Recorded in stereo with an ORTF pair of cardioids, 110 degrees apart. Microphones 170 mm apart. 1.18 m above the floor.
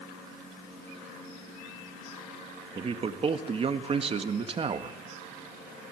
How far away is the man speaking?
About 1.8 m.